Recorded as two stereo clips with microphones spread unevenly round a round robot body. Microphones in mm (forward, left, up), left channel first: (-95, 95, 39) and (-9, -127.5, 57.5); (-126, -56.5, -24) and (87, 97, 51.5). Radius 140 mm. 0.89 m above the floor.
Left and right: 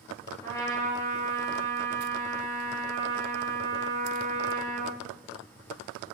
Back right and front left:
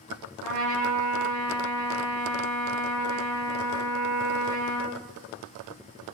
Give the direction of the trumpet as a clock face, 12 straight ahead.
11 o'clock.